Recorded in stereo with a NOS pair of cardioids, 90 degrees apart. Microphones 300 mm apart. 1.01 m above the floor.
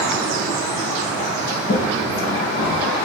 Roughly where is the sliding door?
Ahead left.